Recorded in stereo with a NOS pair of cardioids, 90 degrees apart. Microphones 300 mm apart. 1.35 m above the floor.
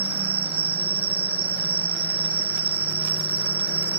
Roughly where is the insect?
Ahead right.